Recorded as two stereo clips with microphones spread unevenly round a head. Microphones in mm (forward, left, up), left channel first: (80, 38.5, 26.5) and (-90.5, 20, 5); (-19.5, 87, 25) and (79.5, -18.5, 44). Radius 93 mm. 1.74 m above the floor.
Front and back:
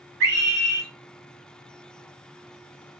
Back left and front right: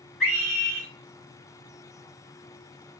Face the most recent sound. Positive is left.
turn(degrees=-135)